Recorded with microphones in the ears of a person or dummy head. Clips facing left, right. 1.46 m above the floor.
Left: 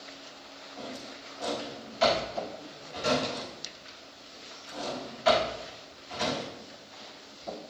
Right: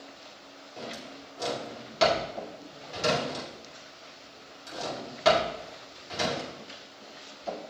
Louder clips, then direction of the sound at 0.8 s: Right 1 dB; 75° right (ahead or behind).